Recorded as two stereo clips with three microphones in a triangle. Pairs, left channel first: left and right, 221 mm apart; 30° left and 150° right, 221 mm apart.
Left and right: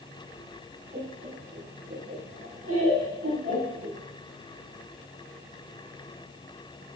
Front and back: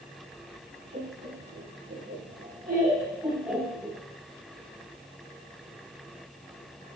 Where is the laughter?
135° right, 4 m; by 4.0 s 50° right, 2 m.